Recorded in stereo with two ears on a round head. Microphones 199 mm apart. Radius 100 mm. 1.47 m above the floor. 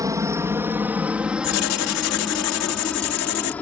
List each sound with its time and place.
0.0 s a helicopter: 15° right (ahead or behind); by 3.6 s 10° left (ahead or behind)
1.4 s writing: 75° left (ahead or behind)